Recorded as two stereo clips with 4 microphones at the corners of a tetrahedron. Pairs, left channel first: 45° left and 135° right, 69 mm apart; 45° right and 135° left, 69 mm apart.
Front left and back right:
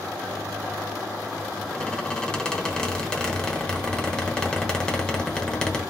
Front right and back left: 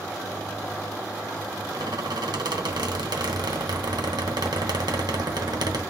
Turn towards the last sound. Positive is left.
turn(degrees=125)